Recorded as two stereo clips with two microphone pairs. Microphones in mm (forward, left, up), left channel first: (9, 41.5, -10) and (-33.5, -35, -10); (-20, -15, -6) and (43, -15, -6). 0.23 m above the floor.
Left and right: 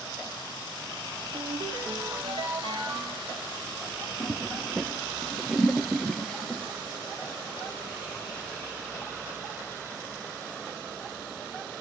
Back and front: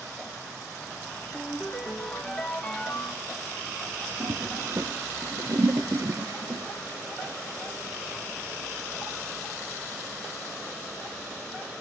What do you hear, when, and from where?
1.3 s a ringtone: 95° right, 2.5 m
4.2 s a toilet flushing: 25° right, 1.0 m